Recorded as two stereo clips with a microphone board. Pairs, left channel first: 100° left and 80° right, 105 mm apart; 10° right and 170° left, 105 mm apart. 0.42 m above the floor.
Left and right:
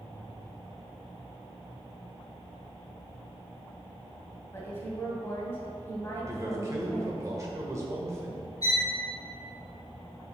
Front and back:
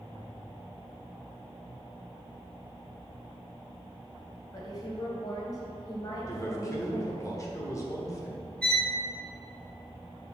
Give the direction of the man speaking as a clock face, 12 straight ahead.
1 o'clock.